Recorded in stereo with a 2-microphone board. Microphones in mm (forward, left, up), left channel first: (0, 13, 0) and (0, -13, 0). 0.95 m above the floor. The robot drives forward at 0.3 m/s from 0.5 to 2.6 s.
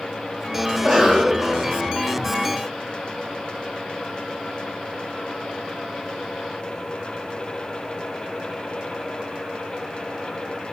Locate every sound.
0.7 s a cough: 10° right (ahead or behind), 0.7 m; by 1.7 s 15° right (ahead or behind), 0.5 m